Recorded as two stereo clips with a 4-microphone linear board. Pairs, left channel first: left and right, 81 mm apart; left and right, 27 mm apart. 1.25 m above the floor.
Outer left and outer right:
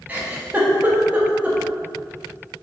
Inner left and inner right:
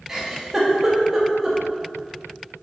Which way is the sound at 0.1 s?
20° right (ahead or behind).